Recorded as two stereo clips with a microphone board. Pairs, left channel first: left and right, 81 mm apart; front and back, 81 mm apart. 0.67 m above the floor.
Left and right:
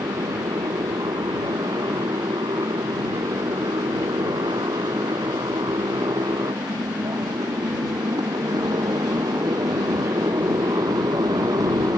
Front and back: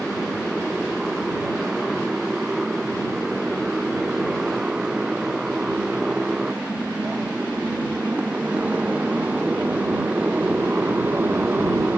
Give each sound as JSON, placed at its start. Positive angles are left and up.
{"t": 0.0, "sound": "a motorcycle", "azimuth_deg": -95}